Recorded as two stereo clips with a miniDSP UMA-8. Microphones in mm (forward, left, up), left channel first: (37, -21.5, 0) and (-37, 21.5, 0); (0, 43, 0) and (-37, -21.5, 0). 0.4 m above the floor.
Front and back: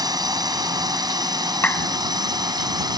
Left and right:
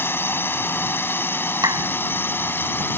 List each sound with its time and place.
0.0 s a drone: 115° left; by 3.0 s 120° left
1.6 s a clap: 95° right